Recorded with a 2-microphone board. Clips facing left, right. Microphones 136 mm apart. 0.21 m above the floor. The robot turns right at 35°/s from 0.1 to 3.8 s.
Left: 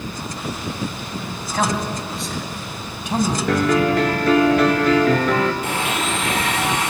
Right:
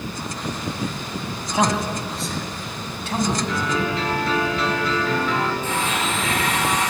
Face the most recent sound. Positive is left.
turn(degrees=75)  # may be behind; listen again after turning